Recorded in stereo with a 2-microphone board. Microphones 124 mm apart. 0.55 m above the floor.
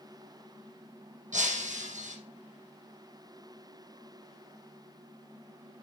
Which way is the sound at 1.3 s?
85° right.